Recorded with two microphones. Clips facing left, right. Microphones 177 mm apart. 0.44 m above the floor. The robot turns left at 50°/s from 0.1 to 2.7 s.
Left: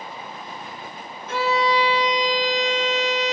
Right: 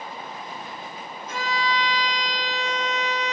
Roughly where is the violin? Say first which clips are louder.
Left 7 dB; left.